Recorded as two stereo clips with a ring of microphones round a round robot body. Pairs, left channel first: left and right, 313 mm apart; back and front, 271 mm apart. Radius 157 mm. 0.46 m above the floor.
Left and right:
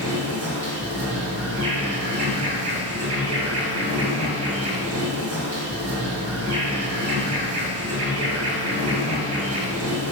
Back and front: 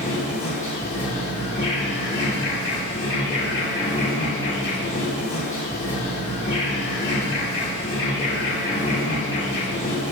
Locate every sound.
0.0 s an insect: 115° right, 4 m